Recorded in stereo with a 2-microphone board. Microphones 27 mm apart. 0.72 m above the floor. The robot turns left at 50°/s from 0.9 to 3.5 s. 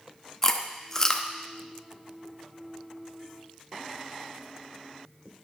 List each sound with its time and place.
0.4 s chewing: 20° left (ahead or behind), 0.7 m; by 1.3 s 30° left (ahead or behind), 0.7 m